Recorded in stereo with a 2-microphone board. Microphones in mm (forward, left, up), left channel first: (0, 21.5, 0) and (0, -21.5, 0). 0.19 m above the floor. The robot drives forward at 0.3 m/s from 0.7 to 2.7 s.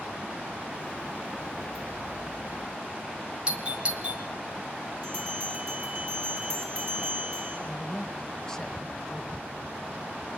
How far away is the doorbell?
About 1.5 m.